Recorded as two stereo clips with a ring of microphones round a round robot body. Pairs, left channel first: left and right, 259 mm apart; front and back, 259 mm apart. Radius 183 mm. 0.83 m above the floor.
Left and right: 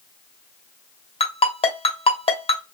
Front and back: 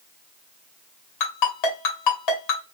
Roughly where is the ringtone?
Ahead.